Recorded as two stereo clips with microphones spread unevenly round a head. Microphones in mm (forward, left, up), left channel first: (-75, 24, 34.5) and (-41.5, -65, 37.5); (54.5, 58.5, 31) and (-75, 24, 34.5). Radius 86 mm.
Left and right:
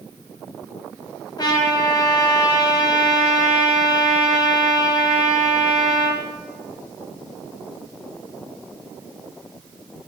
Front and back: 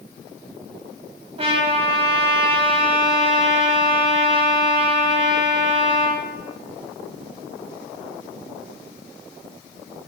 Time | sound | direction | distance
1.4 | a trumpet | 150° left | 0.8 m